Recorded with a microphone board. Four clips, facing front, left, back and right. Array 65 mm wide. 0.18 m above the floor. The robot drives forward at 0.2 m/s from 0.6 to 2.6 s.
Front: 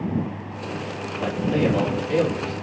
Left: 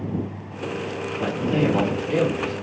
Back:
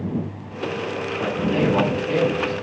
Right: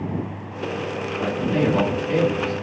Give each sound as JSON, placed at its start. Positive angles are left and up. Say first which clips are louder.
{"t": 1.2, "sound": "a man speaking", "louder": "even, even", "azimuth_deg": 175, "distance_m": 2.0}